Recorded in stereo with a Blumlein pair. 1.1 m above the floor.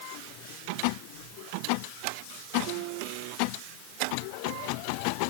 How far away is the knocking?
No knocking in this recording.